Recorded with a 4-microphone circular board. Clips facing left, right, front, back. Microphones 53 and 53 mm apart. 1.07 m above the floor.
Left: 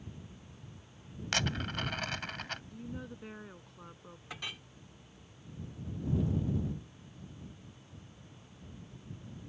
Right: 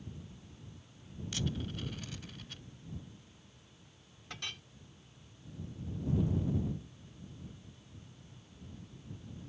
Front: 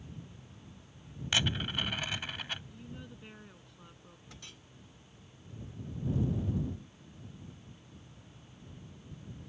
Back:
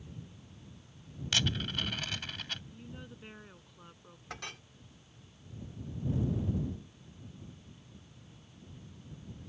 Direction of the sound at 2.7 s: 100° left.